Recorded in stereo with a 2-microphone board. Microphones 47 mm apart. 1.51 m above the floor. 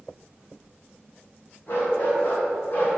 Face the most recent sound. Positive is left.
turn(degrees=40)  # may be behind; listen again after turning